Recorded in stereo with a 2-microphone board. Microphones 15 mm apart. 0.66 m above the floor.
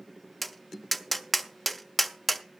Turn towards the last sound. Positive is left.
turn(degrees=-5)  # may be behind; listen again after turning